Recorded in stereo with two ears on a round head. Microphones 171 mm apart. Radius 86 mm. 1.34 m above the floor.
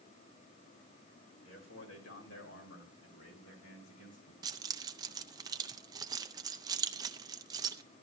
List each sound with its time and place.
1.4 s a man speaking: 75° left (ahead or behind), 4 m; by 4.3 s 85° left, 6 m
4.4 s keys jangling: 20° right (ahead or behind), 0.5 m